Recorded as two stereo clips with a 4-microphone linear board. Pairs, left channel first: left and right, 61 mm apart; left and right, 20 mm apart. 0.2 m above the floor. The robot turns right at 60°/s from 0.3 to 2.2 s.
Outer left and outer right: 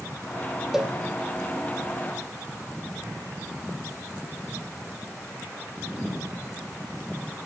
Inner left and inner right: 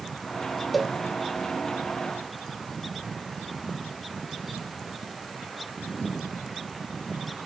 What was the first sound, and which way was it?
A cowbell, 10° right (ahead or behind).